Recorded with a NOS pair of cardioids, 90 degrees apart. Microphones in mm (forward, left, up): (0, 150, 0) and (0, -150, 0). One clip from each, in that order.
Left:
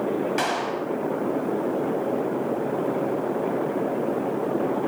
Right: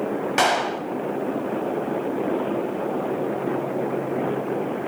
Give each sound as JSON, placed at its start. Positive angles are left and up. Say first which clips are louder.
{"t": 0.4, "sound": "a clap", "louder": "right 5 dB", "azimuth_deg": -50, "distance_m": 5.0}